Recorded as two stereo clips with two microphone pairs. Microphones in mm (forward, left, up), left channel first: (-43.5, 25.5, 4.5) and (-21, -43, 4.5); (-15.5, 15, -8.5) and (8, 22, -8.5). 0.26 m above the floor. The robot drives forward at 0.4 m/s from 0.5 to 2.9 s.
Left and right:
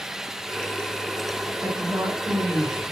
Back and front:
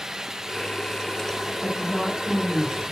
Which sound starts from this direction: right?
A woman speaking, at 1.6 s.